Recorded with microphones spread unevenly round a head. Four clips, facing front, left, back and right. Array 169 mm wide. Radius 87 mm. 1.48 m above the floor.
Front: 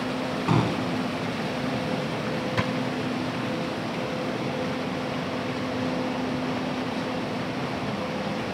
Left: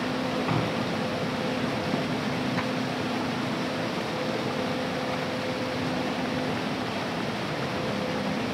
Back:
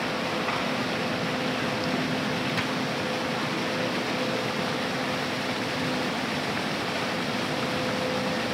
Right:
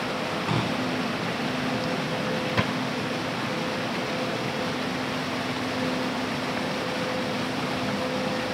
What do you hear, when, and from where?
0.5 s a gunshot: straight ahead
2.6 s a drawer: 80° right